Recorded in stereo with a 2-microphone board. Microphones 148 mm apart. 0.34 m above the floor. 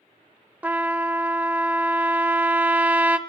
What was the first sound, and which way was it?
A trumpet, 10° right (ahead or behind).